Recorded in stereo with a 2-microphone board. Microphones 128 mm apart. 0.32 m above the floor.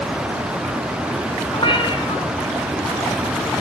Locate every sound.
1.5 s a cat meowing: 40° left (ahead or behind), 2 m